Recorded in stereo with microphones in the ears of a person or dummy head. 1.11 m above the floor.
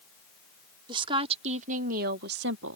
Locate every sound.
0.9 s a woman speaking: 25° right (ahead or behind); by 2.8 s 70° right (ahead or behind)